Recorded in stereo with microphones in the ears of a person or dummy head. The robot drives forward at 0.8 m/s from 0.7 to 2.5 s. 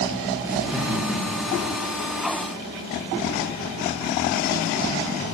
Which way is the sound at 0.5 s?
10° right (ahead or behind).